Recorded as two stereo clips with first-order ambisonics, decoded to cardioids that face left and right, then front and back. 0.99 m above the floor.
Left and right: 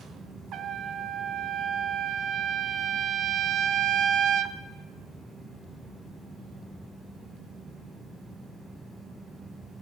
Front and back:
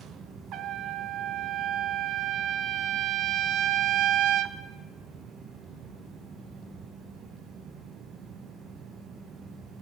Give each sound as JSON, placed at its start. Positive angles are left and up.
{"t": 0.5, "sound": "a trumpet", "azimuth_deg": -140, "distance_m": 0.7}